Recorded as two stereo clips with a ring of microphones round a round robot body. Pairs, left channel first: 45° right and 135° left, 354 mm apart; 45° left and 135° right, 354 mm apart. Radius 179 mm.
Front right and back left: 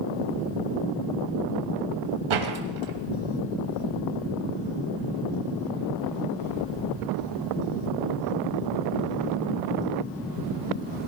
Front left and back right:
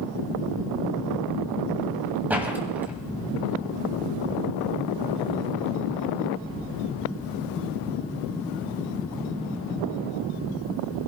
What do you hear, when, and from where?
2.3 s a door slam: 140° left, 2 m